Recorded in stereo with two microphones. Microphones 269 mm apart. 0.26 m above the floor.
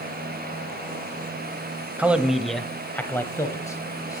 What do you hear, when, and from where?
2.0 s a man speaking: 5° right (ahead or behind), 1.0 m; by 4.2 s 15° left (ahead or behind), 1.7 m